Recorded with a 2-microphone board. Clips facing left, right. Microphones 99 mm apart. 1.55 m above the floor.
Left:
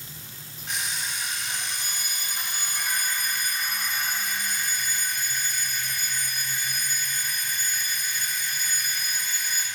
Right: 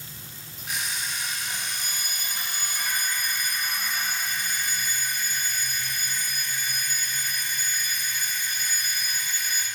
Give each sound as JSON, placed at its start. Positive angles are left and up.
{"t": 0.7, "sound": "an alarm clock", "side_deg": -5, "distance_m": 4.0}